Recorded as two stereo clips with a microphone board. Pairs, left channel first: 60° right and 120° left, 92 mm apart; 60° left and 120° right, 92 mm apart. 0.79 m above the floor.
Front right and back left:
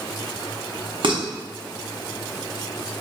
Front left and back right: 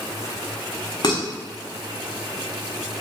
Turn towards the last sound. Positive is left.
turn(degrees=95)